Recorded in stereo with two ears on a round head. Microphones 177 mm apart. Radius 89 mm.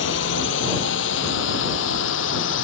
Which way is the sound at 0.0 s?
60° left (ahead or behind).